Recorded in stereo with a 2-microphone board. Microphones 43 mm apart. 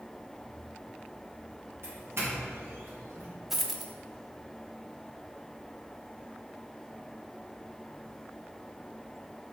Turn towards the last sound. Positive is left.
turn(degrees=-5)  # may be behind; listen again after turning